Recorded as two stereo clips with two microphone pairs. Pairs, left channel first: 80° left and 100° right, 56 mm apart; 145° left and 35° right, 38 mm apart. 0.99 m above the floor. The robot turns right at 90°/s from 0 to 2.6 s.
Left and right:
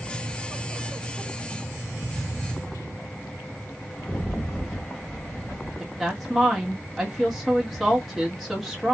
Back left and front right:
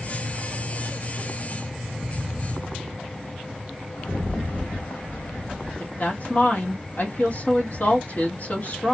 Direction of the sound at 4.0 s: 160° left.